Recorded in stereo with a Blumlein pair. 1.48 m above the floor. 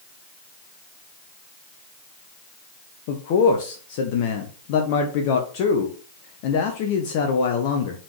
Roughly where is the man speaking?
Ahead left.